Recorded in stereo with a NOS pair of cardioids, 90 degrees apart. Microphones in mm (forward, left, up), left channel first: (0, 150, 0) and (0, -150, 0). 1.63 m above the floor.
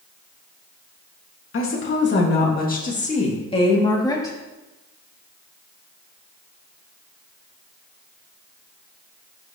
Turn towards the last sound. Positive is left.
turn(degrees=10)